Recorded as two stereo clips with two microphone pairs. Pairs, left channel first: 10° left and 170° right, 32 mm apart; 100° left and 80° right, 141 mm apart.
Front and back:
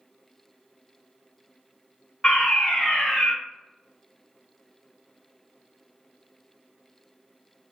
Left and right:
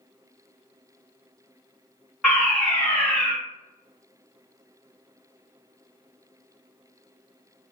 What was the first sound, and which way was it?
A fire alarm, 30° left.